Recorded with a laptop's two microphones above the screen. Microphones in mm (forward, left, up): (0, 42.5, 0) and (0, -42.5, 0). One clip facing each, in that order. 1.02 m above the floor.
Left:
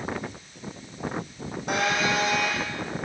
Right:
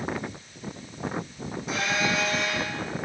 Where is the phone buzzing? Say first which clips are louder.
Left 2 dB; 55° left (ahead or behind), 9.5 m.